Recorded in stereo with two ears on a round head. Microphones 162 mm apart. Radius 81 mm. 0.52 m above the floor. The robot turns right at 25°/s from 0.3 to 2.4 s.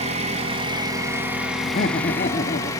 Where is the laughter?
40° left (ahead or behind), 0.9 m.